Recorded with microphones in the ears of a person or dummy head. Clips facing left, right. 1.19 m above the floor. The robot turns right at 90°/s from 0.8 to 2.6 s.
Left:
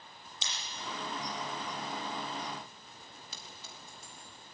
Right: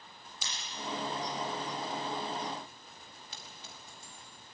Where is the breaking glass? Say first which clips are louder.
Left 1 dB; 20° left (ahead or behind), 7.5 m.